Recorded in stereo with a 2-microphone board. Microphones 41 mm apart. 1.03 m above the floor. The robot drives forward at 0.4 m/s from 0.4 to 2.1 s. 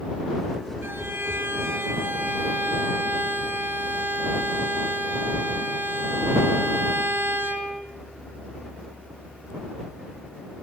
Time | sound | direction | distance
0.8 | a violin | 75° right (ahead or behind) | 2 m